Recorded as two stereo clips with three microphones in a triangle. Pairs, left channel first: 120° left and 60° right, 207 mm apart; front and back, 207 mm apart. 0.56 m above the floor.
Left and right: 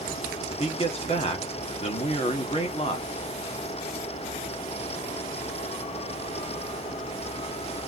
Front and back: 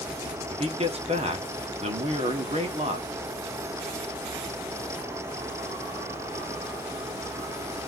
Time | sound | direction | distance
0.5 | a man speaking | 150° left | 1.4 m